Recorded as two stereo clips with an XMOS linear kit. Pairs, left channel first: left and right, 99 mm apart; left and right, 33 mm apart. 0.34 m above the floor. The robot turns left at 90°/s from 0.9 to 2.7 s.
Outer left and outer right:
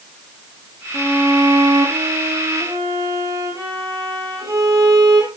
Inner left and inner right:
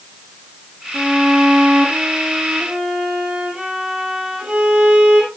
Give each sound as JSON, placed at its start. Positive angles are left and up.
{"t": 0.9, "sound": "a violin", "azimuth_deg": 10, "distance_m": 4.0}